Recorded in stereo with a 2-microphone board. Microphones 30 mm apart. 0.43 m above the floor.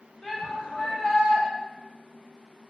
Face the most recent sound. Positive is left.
turn(degrees=20)  # may be behind; listen again after turning